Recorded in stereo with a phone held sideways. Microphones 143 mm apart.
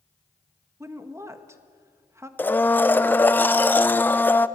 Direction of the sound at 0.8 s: 20° right (ahead or behind).